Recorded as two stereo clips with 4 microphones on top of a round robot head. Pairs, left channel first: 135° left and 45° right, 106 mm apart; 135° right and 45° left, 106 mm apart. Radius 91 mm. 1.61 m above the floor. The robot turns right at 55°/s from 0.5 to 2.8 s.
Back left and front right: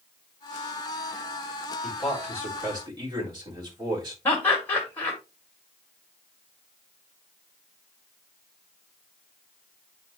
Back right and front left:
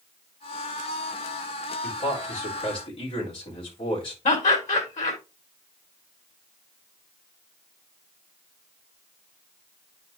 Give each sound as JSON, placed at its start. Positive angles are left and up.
{"t": 1.8, "sound": "a man speaking", "azimuth_deg": -145, "distance_m": 3.5}
{"t": 4.2, "sound": "laughter", "azimuth_deg": -150, "distance_m": 1.7}